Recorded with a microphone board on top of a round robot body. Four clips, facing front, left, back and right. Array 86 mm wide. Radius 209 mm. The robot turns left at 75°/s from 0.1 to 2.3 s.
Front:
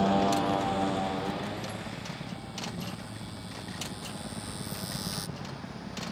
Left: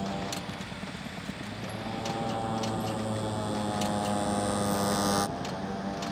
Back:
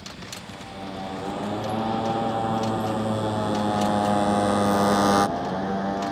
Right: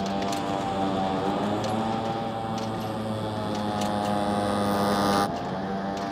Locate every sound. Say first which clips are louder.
0.0 s a motorcycle: right 7 dB, front 15 dB; 20° right; by 6.1 s 155° right